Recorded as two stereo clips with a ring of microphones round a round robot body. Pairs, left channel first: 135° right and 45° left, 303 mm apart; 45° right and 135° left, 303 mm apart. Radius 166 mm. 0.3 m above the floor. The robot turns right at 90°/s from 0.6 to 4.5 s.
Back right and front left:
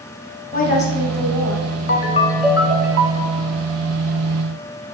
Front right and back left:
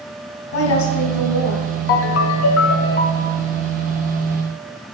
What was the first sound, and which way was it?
A woman speaking, 75° right.